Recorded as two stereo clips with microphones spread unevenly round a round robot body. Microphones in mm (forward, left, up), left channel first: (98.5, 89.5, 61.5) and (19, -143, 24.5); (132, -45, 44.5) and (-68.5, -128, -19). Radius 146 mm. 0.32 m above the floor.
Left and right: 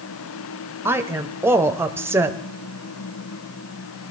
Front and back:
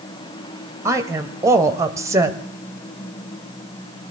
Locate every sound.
0.8 s a woman speaking: 160° right, 1.1 m